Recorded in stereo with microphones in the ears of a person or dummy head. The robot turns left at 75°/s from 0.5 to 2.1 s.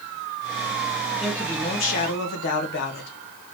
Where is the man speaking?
175° right, 1.8 m; by 3.1 s 115° left, 1.8 m.